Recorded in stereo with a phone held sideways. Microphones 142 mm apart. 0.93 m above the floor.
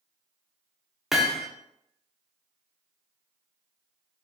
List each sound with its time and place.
1.1 s hammering: centre (ahead or behind), 0.6 m